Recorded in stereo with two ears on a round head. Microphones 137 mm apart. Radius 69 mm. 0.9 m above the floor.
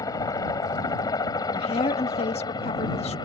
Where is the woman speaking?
45° left (ahead or behind).